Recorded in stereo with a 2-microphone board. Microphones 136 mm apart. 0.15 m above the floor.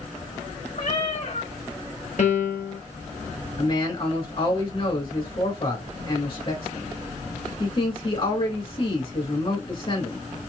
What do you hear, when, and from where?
0.8 s a cat meowing: 60° left (ahead or behind), 2.5 m
2.2 s a piano: 60° left (ahead or behind), 1.0 m
3.6 s a man speaking: 40° left (ahead or behind), 2 m